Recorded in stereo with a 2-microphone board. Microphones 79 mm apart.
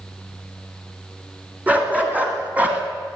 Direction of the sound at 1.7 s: 20° right (ahead or behind).